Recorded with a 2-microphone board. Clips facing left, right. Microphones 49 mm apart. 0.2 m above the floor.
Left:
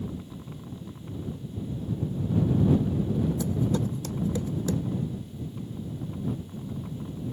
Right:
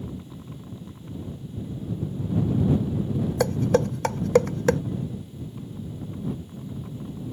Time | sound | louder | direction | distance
3.4 | dishes clattering | right 6 dB | 65° right (ahead or behind) | ?